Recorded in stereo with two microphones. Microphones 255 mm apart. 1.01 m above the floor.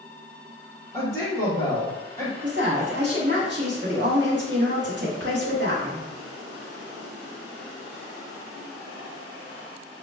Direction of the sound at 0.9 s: 30° right (ahead or behind).